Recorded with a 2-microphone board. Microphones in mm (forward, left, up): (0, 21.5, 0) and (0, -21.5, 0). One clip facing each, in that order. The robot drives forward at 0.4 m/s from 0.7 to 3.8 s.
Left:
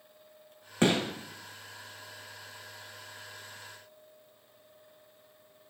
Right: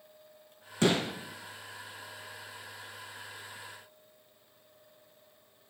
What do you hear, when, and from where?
0.8 s a gunshot: 30° left (ahead or behind), 1.2 m